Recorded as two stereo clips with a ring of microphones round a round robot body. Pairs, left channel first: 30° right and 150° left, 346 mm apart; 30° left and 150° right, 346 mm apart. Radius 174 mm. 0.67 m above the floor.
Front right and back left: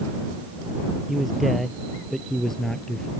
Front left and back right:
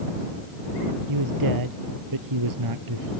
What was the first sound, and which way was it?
A man speaking, 120° right.